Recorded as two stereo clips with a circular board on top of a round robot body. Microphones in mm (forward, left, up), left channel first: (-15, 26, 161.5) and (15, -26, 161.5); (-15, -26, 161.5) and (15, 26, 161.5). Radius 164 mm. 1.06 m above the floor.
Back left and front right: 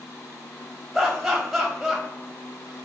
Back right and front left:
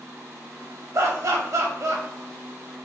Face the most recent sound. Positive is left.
turn(degrees=30)